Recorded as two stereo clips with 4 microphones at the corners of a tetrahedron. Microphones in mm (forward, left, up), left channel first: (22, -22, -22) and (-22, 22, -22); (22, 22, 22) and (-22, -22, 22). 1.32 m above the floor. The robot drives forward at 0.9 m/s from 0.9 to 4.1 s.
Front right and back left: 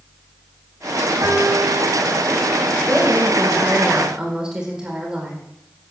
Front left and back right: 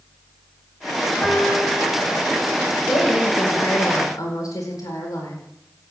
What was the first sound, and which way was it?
A piano, 105° left.